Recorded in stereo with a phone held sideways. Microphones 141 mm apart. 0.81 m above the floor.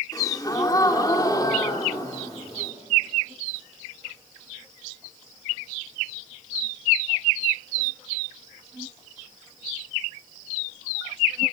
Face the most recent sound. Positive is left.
turn(degrees=25)  # may be behind; listen again after turning